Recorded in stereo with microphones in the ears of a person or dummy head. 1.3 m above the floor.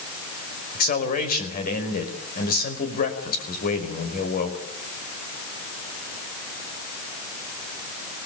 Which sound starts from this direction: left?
A man speaking, at 0.7 s.